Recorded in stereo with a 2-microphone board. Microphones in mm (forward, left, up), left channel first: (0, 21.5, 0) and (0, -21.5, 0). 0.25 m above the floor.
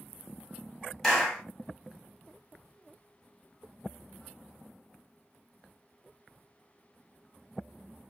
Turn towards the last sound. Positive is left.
turn(degrees=10)  # may be behind; listen again after turning